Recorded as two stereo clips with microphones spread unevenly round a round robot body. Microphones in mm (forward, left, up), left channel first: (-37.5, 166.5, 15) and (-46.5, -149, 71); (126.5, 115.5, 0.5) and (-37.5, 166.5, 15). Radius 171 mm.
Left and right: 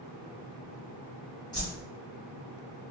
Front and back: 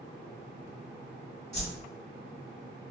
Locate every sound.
1.5 s a whoosh: 35° left, 1.7 m